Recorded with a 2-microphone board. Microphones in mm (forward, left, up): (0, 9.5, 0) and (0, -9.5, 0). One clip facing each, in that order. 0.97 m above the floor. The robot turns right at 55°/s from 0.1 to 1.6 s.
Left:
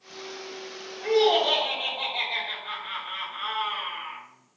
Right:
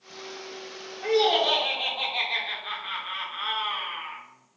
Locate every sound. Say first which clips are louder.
1.0 s laughter: left 1 dB; 145° right, 1.2 m; by 4.2 s 115° right, 1.2 m